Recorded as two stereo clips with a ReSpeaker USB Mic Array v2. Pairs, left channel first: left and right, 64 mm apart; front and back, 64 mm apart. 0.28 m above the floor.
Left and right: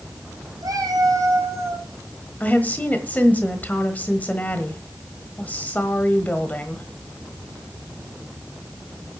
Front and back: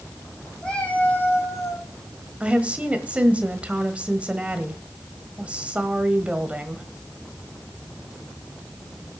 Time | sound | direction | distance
0.6 | a cat meowing | 75° right | 2 m
2.4 | a woman speaking | 130° left | 1.3 m